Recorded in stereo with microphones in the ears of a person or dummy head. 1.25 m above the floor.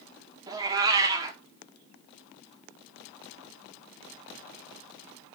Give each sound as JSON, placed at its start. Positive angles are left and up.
{"t": 0.5, "sound": "a cat meowing", "side_deg": -20, "distance_m": 1.2}